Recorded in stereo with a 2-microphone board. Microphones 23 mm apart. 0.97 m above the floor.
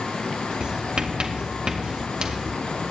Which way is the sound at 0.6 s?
50° right (ahead or behind).